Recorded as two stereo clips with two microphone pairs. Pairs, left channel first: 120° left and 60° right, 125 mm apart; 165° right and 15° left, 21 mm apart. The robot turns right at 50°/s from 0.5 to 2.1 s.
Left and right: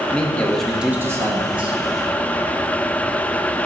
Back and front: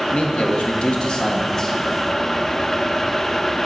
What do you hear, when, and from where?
0.1 s a man speaking: 160° right, 1.0 m; by 1.8 s 95° right, 1.0 m